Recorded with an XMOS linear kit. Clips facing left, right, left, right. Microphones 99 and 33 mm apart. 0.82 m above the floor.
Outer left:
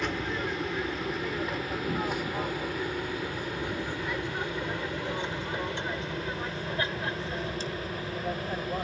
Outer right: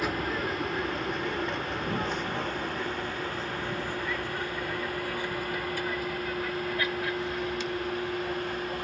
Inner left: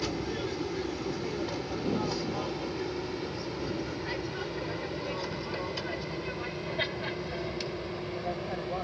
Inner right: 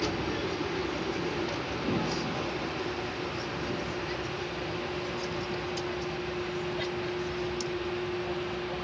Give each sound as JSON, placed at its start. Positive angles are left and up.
{"t": 0.0, "sound": "an aircraft", "side_deg": -5}